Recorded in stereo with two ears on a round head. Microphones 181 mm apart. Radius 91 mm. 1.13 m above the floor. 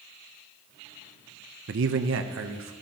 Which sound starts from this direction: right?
A man speaking, at 1.7 s.